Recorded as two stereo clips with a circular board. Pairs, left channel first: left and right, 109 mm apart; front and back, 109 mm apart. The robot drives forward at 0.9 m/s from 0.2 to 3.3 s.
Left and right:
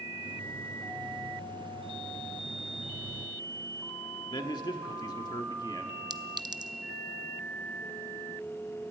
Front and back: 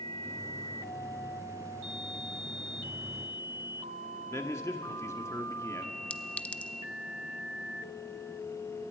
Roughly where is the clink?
Right.